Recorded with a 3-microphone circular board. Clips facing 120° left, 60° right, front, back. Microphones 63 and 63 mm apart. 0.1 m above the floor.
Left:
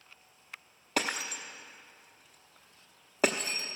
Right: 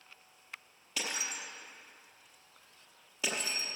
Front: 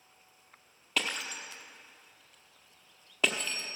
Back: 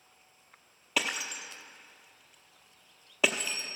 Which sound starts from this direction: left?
Breaking glass, at 1.0 s.